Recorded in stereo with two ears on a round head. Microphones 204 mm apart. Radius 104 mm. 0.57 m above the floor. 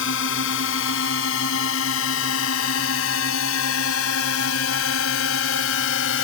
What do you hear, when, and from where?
0.0 s a drone: 60° left (ahead or behind); by 6.2 s 70° left (ahead or behind)